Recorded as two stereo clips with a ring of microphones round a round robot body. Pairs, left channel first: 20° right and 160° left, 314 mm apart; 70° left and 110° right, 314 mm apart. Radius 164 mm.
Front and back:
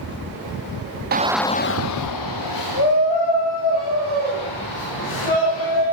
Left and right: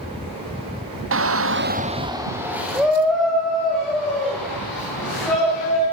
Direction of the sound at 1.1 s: 150° right.